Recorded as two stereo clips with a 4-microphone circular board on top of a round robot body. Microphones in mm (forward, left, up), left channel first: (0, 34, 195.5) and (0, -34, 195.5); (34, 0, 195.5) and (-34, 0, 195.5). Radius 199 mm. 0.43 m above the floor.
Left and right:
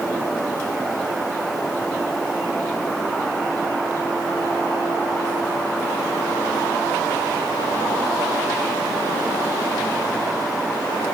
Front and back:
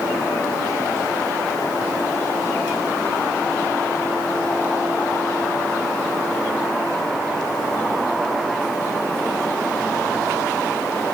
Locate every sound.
Only background noise.